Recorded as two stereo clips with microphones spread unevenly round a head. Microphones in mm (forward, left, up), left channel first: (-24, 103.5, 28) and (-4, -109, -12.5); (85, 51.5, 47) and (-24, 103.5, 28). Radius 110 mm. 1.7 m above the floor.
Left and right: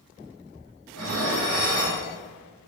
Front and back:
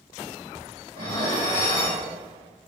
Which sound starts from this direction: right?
Dishes clattering, at 0.9 s.